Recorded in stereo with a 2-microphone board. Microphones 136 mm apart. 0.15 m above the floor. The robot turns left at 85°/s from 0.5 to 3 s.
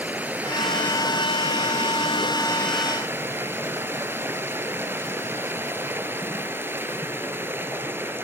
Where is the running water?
165° right, 0.8 m; by 8.2 s 20° right, 0.8 m.